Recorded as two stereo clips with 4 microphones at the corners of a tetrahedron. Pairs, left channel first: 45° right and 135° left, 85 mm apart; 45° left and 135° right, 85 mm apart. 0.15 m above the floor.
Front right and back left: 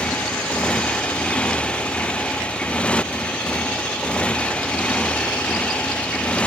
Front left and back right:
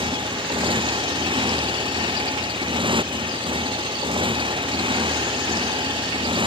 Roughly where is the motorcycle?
Behind right.